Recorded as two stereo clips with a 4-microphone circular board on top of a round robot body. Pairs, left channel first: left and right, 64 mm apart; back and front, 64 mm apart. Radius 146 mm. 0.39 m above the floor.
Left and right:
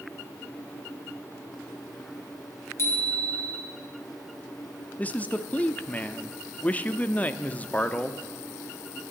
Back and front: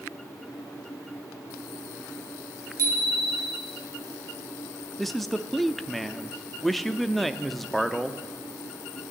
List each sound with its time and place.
2.8 s a bicycle bell: 40° left, 3.5 m
5.0 s a man speaking: 95° left, 0.8 m